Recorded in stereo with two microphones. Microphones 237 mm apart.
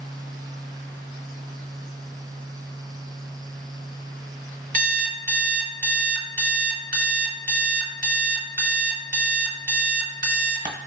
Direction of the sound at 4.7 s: 35° right (ahead or behind).